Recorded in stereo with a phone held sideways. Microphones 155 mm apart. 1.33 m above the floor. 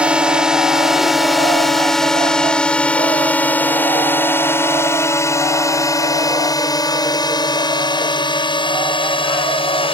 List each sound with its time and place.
0.0 s a drone: 5° right (ahead or behind); by 9.9 s 35° left (ahead or behind)